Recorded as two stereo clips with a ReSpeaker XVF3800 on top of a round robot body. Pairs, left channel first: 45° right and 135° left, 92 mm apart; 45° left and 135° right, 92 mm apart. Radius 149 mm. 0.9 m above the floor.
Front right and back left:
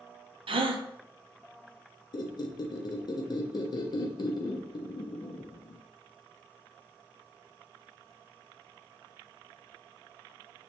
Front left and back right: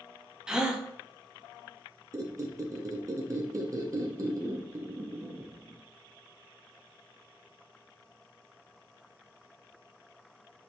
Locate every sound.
0.5 s a gasp: 140° left, 0.6 m
2.1 s a squeak: 85° right, 0.6 m